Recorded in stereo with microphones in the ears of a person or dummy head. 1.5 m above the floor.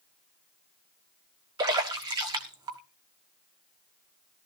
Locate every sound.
1.6 s a splash: 20° right (ahead or behind), 1.3 m